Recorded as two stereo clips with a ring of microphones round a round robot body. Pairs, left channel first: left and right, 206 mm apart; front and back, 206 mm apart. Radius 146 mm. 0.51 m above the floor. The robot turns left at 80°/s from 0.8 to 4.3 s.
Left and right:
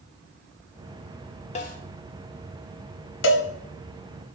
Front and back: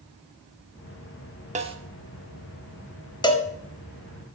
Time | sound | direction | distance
1.6 | a snare drum | 135° left | 0.9 m
3.2 | a cowbell | 70° left | 0.9 m